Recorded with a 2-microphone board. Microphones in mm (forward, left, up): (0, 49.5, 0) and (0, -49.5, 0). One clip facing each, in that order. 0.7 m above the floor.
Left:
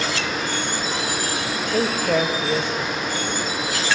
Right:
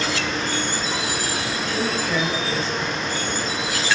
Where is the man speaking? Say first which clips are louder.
Left 5 dB; 60° left (ahead or behind), 3.5 m.